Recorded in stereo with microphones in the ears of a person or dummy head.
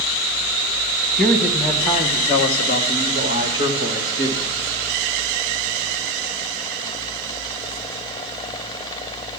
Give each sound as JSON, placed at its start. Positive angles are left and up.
{"t": 1.2, "sound": "a man speaking", "side_deg": 15, "distance_m": 1.4}